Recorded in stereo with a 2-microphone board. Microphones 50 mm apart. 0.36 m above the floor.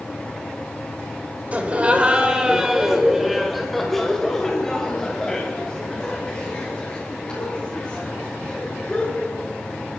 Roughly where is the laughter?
Right.